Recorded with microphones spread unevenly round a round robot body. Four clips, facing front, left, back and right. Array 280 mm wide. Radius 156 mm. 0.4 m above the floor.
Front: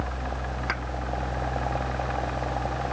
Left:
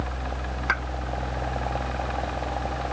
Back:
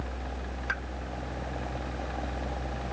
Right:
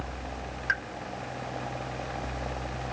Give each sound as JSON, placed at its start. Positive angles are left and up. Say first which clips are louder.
{"t": 0.7, "sound": "a pop", "louder": "left 4 dB, front 2 dB", "azimuth_deg": 55}